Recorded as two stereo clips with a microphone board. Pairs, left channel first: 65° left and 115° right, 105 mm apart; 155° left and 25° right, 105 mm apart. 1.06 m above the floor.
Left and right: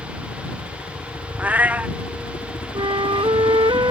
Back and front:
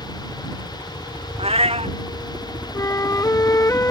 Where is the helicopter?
45° left; by 3.9 s 60° left.